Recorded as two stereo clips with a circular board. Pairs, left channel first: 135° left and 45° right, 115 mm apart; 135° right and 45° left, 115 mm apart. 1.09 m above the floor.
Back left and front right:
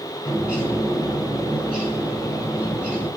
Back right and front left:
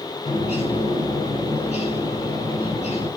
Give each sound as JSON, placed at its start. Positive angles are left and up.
{"t": 0.2, "sound": "a bird", "azimuth_deg": -125, "distance_m": 5.5}